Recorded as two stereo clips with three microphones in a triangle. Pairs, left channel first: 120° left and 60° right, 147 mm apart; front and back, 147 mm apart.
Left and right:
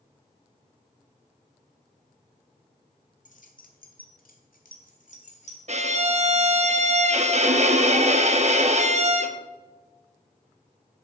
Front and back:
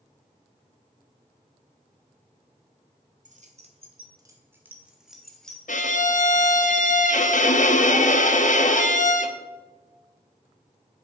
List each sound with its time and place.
3.2 s keys jangling: 150° left, 1.5 m; by 5.6 s 85° left, 2.5 m
5.7 s a violin: 25° right, 0.8 m